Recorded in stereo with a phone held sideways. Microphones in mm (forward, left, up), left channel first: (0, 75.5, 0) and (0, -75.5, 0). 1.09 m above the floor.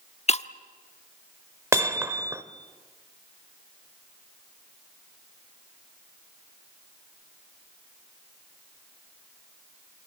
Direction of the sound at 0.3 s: 45° left (ahead or behind).